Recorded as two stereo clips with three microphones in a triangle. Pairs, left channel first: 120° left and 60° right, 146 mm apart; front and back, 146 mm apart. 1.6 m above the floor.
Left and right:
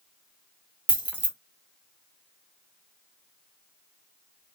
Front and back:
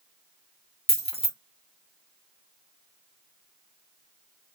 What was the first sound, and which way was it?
Keys jangling, 20° left.